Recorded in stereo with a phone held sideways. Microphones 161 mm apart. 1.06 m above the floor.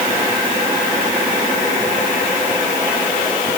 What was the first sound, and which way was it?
Only background noise.